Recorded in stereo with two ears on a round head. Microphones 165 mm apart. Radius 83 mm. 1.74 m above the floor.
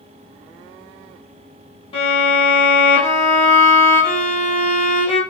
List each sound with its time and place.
1.9 s a violin: 30° left (ahead or behind), 1.2 m